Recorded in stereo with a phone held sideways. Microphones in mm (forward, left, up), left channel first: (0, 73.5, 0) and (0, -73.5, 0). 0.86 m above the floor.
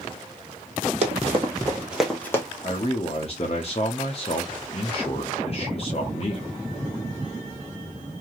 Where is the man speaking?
45° left (ahead or behind), 0.6 m.